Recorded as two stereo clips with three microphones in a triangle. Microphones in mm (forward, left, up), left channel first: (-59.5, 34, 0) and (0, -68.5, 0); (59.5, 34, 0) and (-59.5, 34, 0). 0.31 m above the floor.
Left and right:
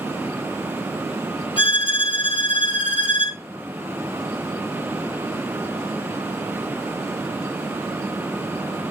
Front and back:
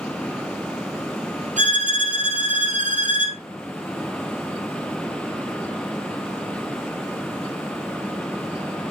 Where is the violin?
170° left, 2 m.